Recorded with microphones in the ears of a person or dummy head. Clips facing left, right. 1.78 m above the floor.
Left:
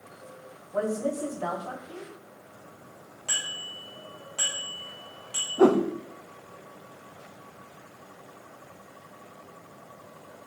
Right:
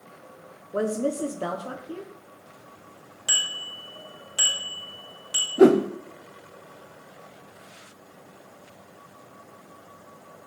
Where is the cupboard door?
No cupboard door in this recording.